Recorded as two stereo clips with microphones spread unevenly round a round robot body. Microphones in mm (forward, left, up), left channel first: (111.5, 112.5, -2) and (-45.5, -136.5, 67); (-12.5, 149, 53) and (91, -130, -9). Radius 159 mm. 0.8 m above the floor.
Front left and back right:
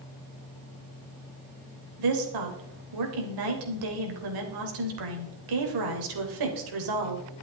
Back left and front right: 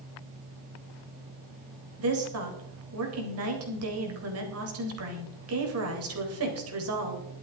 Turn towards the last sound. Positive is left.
turn(degrees=-110)